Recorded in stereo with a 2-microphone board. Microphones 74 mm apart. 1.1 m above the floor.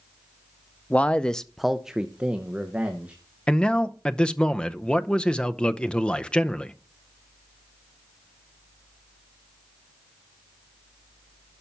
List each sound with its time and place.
0.9 s a man speaking: 20° left (ahead or behind), 0.6 m; by 3.1 s 15° right (ahead or behind), 1.5 m
3.5 s a man speaking: 15° left (ahead or behind), 0.6 m